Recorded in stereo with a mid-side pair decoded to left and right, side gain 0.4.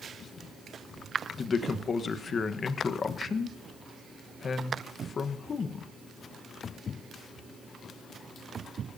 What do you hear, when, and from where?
1.4 s a man speaking: 50° left, 1.1 m